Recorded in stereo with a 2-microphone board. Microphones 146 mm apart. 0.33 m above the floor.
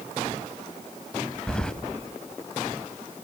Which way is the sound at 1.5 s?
5° left (ahead or behind).